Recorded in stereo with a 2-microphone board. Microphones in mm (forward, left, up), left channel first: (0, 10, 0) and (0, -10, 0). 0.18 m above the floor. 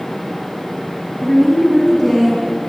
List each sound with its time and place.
1.2 s a woman speaking: 25° left (ahead or behind), 1.6 m; by 2.4 s 20° left (ahead or behind), 2 m